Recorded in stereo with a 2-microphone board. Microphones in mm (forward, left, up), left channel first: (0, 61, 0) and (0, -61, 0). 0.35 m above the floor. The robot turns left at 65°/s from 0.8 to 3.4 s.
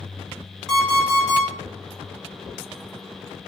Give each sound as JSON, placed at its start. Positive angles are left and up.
{"t": 0.7, "sound": "an alarm clock", "azimuth_deg": 175, "distance_m": 1.2}